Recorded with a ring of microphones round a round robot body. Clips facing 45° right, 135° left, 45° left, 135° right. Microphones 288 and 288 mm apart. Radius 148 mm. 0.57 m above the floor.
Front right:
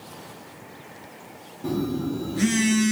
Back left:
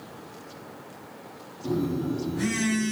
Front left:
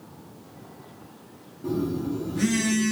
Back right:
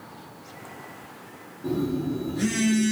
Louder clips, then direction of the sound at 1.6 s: Front right 1 dB, back right 1 dB; 30° right.